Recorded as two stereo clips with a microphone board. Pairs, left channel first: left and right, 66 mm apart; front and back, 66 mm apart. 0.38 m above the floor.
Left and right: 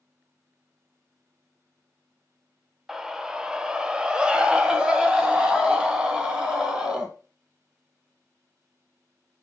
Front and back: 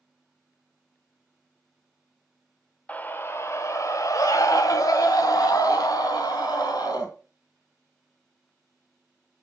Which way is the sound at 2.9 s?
15° right.